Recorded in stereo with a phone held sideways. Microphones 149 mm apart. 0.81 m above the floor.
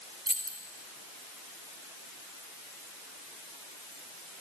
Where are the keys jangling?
70° right (ahead or behind), 1.6 m.